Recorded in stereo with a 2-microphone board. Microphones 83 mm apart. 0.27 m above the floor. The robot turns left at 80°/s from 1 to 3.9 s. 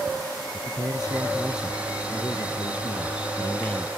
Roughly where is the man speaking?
Behind right.